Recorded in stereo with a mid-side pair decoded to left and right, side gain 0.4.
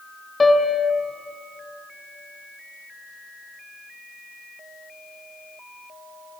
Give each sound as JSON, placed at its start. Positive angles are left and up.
{"t": 0.4, "sound": "a piano", "azimuth_deg": 25, "distance_m": 1.2}